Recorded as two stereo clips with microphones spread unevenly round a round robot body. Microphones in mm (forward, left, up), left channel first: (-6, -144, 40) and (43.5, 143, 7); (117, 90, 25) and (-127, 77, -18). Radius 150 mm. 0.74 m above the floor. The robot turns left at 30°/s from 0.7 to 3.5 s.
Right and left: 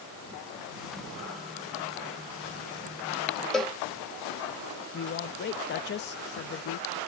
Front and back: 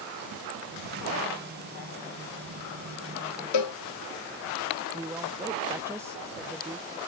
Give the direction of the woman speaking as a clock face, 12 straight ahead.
4 o'clock.